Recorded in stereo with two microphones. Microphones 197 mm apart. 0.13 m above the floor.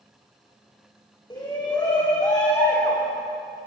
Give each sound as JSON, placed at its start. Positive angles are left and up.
{"t": 1.3, "sound": "a shout", "side_deg": 20, "distance_m": 8.5}